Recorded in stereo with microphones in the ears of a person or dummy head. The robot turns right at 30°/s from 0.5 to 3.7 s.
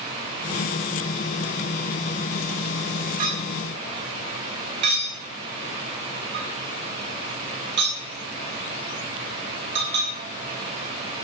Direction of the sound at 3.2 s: 45° right (ahead or behind).